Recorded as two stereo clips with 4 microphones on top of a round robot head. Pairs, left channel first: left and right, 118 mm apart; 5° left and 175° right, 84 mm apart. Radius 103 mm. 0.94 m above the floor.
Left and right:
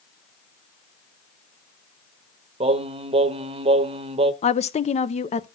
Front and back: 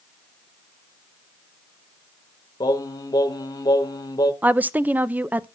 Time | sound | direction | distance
2.6 | singing | 50° right | 0.9 m
4.4 | a woman speaking | 110° left | 0.5 m